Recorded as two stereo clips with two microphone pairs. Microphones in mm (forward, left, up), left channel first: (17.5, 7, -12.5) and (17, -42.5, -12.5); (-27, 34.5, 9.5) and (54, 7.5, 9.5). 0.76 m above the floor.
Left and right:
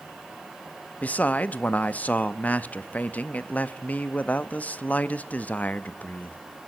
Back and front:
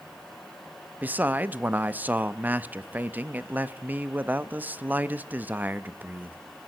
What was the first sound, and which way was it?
A man speaking, 45° left.